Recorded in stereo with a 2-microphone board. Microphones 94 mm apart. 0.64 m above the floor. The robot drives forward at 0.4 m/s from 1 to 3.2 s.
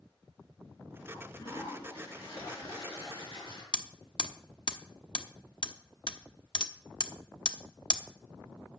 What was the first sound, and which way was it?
A toilet flushing, 85° left.